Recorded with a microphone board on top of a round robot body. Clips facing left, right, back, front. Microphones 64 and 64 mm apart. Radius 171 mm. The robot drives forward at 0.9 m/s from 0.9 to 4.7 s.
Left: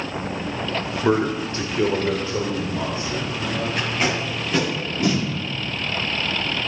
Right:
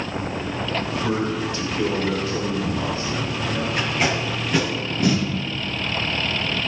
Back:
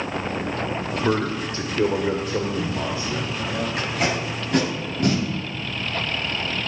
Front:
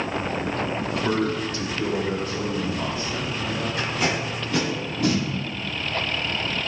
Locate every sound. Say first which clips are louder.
1.0 s a man speaking: left 7 dB, back 2 dB; 110° left, 1.1 m; by 3.7 s 165° left, 3 m
3.8 s tape being pulled: right 1 dB, even; 175° right, 4.5 m